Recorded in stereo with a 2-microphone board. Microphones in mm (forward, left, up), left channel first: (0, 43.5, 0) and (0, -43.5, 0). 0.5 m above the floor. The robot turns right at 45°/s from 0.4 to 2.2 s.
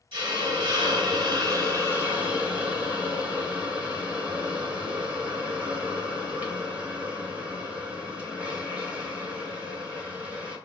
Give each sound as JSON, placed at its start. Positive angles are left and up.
{"t": 0.1, "sound": "a hiss", "azimuth_deg": -100, "distance_m": 1.3}